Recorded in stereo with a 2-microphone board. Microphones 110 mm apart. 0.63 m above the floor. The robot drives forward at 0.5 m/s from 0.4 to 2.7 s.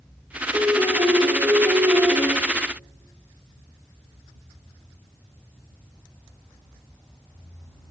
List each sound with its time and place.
0.5 s a piano: 25° right (ahead or behind), 1.4 m; by 2.3 s 15° right (ahead or behind), 2 m